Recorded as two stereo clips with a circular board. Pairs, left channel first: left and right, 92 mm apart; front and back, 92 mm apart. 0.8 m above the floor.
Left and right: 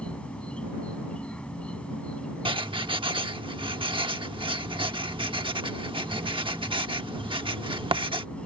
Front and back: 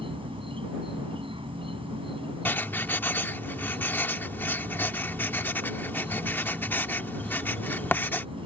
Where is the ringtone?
No ringtone in this recording.